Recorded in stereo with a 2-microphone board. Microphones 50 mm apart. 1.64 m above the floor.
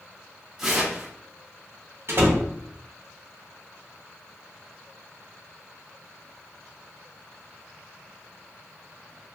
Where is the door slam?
50° right (ahead or behind), 0.7 m.